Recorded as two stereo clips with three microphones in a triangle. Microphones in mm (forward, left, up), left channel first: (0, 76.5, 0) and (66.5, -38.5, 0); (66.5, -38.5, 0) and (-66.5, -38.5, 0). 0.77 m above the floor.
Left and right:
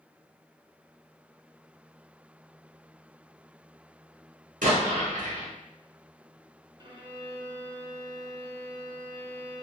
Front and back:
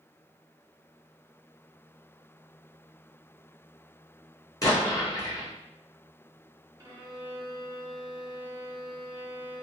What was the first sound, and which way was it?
An explosion, 65° right.